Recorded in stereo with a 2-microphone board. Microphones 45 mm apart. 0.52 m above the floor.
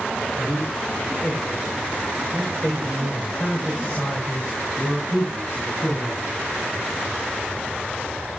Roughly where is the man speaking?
Centre.